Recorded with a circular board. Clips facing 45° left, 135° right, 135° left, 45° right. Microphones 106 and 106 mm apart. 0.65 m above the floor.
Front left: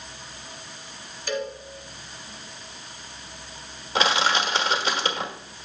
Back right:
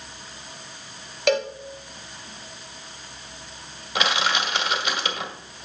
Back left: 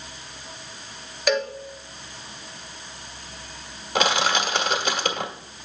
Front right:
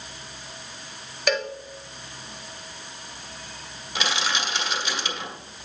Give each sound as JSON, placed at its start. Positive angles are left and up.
{"t": 1.3, "sound": "a cowbell", "azimuth_deg": -135, "distance_m": 0.7}
{"t": 4.0, "sound": "crushing", "azimuth_deg": 100, "distance_m": 1.4}